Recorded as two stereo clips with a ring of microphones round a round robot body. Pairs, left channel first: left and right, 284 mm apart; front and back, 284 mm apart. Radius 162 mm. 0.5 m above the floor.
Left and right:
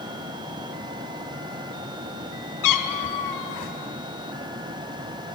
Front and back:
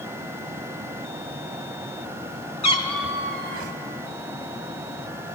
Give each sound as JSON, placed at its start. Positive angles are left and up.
{"t": 2.6, "sound": "a cat meowing", "azimuth_deg": 70, "distance_m": 1.0}